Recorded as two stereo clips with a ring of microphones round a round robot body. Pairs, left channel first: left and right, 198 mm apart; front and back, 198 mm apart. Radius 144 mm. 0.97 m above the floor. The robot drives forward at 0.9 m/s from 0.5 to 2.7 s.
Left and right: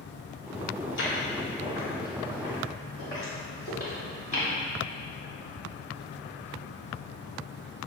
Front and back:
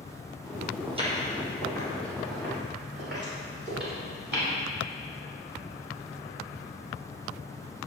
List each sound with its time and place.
0.9 s footsteps: 115° left, 1.8 m; by 4.5 s 155° left, 6.5 m